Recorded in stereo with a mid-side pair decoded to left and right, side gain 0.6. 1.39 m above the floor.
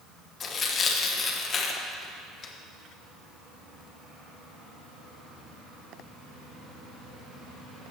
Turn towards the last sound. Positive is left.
turn(degrees=40)